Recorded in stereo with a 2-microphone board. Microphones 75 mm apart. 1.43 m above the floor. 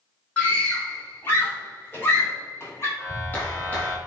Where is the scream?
20° left (ahead or behind), 3 m; by 2.9 s 35° left (ahead or behind), 4 m.